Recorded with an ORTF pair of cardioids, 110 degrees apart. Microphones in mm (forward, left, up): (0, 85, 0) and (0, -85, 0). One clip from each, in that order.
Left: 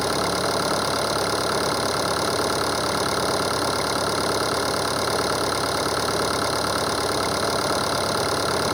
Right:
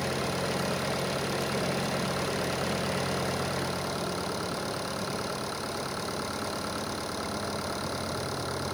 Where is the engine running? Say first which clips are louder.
Left 8 dB; 65° left.